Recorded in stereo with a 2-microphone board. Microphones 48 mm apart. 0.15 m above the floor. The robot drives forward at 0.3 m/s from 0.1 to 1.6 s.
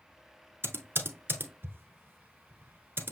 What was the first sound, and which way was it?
Typing on a keyboard, 50° right (ahead or behind).